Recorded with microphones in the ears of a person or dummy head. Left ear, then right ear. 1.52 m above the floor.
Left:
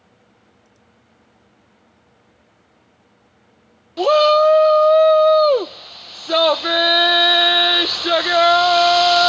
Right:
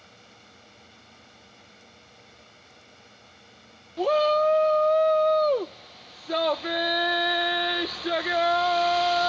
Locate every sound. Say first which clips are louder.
0.0 s a fan: right 4 dB; 65° right (ahead or behind)
4.0 s a shout: left 9 dB; 40° left (ahead or behind)